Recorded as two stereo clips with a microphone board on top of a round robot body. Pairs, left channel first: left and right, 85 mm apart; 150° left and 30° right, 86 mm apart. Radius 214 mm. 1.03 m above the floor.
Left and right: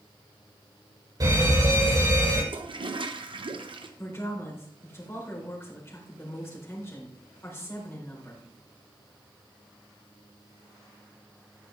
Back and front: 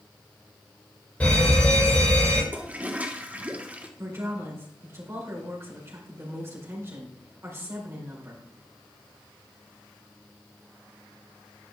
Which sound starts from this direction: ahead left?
A woman speaking, at 4.0 s.